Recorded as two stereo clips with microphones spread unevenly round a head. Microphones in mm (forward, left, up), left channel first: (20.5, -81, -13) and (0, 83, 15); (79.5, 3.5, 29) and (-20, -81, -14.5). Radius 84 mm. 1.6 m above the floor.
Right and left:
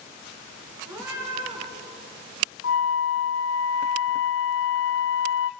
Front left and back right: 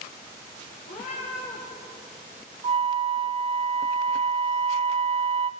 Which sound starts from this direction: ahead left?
A cat meowing, at 0.9 s.